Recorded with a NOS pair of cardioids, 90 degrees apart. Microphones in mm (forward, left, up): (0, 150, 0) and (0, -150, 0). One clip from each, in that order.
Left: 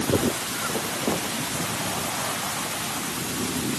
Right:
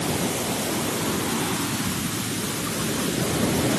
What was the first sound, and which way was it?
Only background noise.